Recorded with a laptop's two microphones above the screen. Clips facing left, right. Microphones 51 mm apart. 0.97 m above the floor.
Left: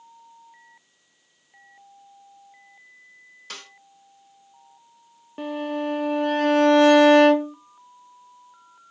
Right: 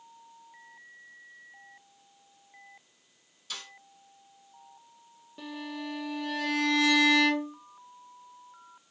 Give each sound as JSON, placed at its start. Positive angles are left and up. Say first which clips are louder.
{"t": 3.5, "sound": "a snare drum", "louder": "left 2 dB", "side_deg": 55, "distance_m": 1.7}
{"t": 5.4, "sound": "a violin", "louder": "left 11 dB", "side_deg": 45, "distance_m": 0.8}